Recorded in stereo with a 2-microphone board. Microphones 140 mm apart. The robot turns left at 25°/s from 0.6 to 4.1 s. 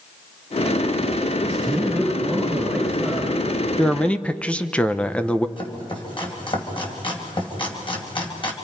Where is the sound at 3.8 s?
5° left (ahead or behind), 0.8 m; by 5.5 s 10° left (ahead or behind), 0.8 m.